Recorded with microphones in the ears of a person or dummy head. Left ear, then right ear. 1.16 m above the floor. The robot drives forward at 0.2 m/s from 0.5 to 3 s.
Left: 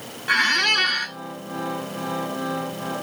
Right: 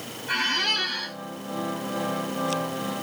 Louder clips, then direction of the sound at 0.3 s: Left 5 dB; 65° left (ahead or behind).